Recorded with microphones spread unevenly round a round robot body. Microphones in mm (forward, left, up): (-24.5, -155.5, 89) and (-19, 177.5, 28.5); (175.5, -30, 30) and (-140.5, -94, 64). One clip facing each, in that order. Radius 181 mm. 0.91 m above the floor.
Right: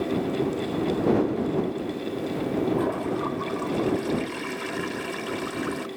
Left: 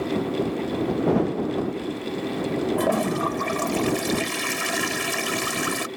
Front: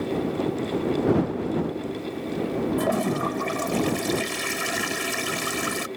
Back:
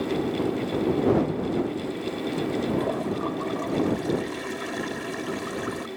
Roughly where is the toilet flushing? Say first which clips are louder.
Left 2 dB, front 2 dB; ahead left.